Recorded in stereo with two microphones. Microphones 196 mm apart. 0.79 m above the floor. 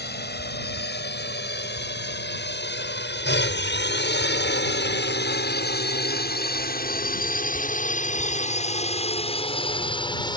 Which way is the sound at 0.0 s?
60° left (ahead or behind).